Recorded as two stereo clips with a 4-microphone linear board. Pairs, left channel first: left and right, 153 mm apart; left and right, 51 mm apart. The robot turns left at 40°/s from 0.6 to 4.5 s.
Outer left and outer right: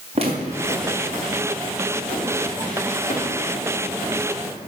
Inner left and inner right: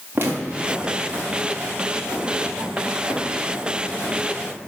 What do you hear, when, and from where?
0.1 s footsteps: 45° right (ahead or behind), 4 m; by 4.5 s centre (ahead or behind), 8 m